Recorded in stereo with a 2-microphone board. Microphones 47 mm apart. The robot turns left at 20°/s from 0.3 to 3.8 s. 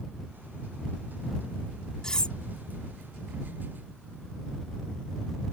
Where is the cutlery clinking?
15° left (ahead or behind); by 2.4 s 20° left (ahead or behind).